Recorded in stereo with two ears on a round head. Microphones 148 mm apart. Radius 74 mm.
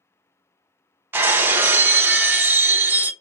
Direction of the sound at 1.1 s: 15° right (ahead or behind).